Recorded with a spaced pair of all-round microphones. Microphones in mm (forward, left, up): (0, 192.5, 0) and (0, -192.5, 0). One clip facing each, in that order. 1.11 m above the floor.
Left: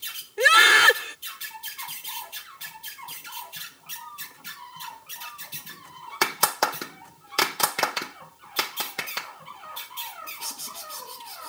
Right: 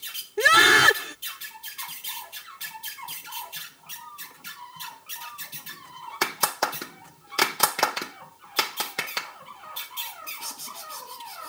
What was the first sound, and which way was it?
A scream, 60° right (ahead or behind).